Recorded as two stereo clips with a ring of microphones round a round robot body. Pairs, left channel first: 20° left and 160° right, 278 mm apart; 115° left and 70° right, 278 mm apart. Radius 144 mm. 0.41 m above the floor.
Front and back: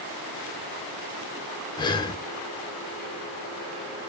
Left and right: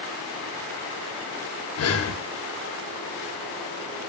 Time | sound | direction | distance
1.8 | breathing | 95° left | 1.5 m